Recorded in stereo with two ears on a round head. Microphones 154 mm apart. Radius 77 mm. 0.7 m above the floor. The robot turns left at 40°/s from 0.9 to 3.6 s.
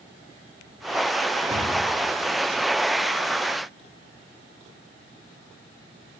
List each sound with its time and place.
1.5 s a cupboard door: 35° right (ahead or behind), 1.3 m; by 1.7 s 40° right (ahead or behind), 1.3 m